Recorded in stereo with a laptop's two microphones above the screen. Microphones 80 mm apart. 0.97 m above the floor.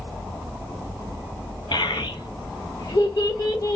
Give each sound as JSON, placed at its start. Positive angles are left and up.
{"t": 1.7, "sound": "a child speaking", "side_deg": 70, "distance_m": 0.9}